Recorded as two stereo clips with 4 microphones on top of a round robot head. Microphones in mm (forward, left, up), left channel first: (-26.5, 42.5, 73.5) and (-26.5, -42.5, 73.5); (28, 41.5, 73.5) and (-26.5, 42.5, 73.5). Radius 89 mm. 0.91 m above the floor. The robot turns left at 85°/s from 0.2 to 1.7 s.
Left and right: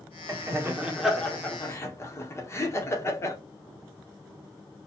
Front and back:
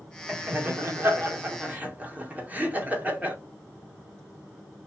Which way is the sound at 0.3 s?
110° right.